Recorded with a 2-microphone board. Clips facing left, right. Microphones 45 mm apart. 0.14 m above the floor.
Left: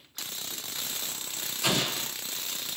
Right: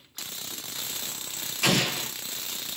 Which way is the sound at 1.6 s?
70° right (ahead or behind).